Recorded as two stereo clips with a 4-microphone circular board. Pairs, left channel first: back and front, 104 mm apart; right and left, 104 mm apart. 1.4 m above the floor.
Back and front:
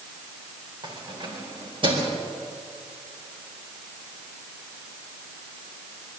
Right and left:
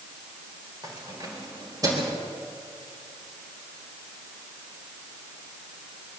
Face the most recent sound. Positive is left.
turn(degrees=35)